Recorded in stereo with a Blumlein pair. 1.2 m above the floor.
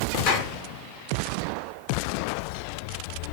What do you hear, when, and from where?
0.3 s a clap: 45° left, 4 m